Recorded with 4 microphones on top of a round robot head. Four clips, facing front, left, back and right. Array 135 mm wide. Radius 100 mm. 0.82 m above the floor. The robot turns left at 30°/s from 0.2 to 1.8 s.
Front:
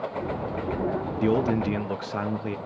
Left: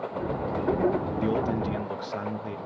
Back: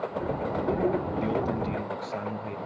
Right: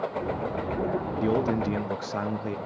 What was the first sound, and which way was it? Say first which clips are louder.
A man speaking: right 4 dB, front 5 dB; 10° right.